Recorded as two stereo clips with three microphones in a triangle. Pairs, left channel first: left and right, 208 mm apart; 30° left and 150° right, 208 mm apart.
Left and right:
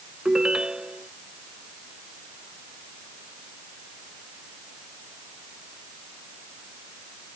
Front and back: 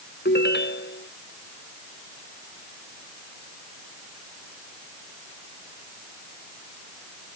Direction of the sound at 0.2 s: 5° right.